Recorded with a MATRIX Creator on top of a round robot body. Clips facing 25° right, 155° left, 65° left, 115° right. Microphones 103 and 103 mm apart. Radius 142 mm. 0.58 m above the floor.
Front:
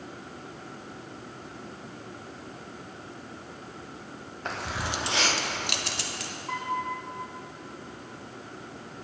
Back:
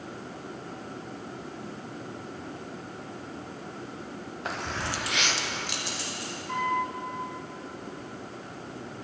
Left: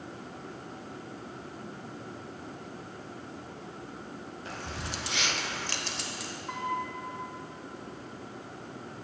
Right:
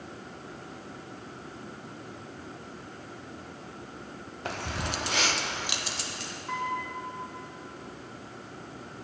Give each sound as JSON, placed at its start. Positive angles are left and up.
{"t": 4.5, "sound": "keys jangling", "azimuth_deg": -115, "distance_m": 1.2}
{"t": 6.5, "sound": "a piano", "azimuth_deg": -15, "distance_m": 3.0}